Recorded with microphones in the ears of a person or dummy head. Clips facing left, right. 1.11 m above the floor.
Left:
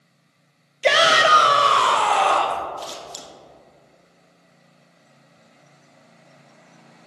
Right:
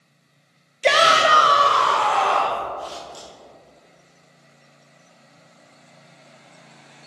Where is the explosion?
No explosion in this recording.